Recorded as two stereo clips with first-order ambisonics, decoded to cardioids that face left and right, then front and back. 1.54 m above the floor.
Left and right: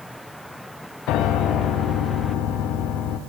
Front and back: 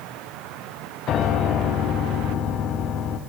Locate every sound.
1.1 s a piano: 50° left, 0.5 m